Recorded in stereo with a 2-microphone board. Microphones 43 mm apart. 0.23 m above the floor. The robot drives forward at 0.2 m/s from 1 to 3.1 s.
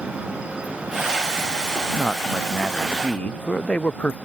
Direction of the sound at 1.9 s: 30° left (ahead or behind).